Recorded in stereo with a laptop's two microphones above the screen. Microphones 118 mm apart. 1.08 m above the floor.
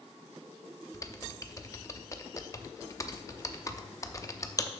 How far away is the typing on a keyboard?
About 0.7 m.